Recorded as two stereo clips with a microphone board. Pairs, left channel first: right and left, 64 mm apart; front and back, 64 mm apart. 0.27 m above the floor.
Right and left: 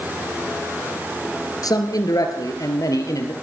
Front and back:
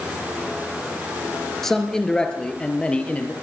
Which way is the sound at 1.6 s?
85° right.